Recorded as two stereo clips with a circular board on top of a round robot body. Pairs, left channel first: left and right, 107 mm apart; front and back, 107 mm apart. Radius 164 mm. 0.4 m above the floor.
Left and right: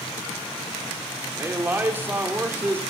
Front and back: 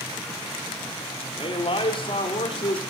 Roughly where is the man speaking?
Ahead.